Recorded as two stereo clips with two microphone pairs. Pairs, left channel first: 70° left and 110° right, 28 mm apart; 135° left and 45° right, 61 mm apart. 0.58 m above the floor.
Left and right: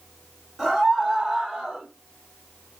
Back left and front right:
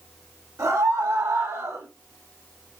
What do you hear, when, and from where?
0.6 s a scream: 20° right, 3 m; by 1.9 s 25° right, 2.5 m